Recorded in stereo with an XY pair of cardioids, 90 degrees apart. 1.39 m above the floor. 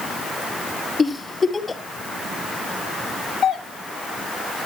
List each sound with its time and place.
1.0 s a giggle: 35° left, 3.5 m
3.4 s a doorbell: 65° left, 4 m